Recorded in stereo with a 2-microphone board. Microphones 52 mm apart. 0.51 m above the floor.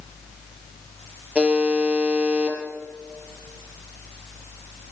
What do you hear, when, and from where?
1.4 s a buzzer: 20° right (ahead or behind), 6.5 m